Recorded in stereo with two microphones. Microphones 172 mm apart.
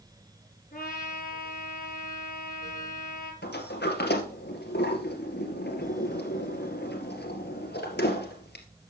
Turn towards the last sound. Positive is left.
turn(degrees=80)